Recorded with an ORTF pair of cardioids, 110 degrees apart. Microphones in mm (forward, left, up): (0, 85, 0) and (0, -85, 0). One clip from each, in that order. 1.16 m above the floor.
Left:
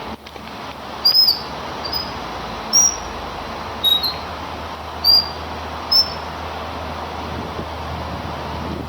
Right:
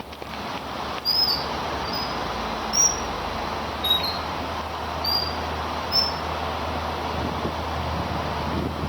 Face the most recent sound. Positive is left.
turn(degrees=60)